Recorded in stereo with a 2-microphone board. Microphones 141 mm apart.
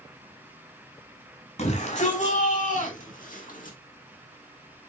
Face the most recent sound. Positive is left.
turn(degrees=70)  # may be behind; listen again after turning